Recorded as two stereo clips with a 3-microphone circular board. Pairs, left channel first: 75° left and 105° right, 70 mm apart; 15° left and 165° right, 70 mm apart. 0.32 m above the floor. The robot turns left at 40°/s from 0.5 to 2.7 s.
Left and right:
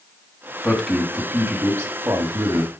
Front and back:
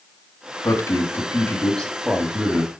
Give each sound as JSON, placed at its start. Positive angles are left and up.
{"t": 0.6, "sound": "a man speaking", "azimuth_deg": -20, "distance_m": 2.5}